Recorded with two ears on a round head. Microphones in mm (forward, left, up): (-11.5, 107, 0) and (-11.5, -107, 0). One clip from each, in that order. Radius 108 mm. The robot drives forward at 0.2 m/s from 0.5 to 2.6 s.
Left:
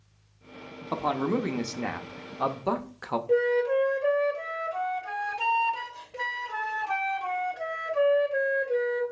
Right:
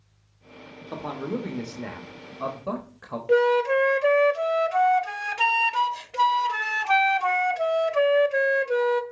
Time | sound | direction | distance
0.9 | a man speaking | 30° left (ahead or behind) | 0.8 m
3.3 | a flute | 65° right (ahead or behind) | 0.7 m